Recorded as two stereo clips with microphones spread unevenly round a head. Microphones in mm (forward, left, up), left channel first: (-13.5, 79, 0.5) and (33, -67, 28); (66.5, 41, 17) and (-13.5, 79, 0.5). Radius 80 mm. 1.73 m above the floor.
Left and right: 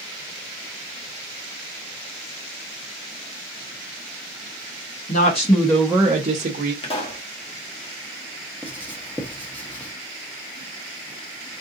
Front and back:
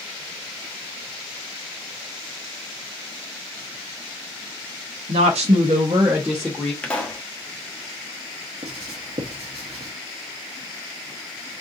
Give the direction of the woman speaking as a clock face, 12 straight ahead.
7 o'clock.